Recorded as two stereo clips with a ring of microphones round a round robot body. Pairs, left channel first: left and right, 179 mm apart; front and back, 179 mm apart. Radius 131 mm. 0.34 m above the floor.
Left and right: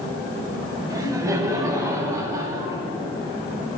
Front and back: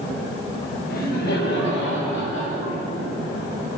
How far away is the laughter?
About 1.8 m.